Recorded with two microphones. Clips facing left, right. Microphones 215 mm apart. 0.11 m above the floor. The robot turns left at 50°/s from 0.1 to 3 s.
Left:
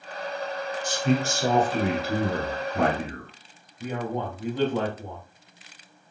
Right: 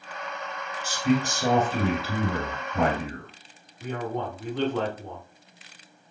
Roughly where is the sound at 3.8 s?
Centre.